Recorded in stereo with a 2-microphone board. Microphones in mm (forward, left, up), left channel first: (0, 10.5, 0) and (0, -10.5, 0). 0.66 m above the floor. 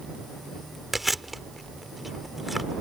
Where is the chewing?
5° right (ahead or behind).